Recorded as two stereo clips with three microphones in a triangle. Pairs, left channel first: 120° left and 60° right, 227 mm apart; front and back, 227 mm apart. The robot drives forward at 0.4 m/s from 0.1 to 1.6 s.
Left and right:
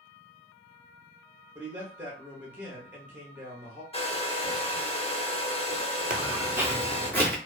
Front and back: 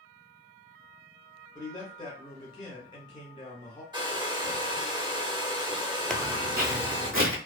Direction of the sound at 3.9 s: 135° left.